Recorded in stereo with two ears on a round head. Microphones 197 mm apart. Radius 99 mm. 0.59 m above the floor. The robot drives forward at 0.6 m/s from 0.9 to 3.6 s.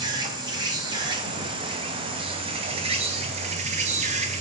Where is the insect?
20° right (ahead or behind), 4 m; by 4.4 s 30° right (ahead or behind), 2.5 m.